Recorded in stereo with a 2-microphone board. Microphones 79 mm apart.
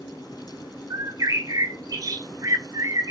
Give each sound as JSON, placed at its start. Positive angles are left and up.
{"t": 0.9, "sound": "a bird", "side_deg": -45, "distance_m": 0.6}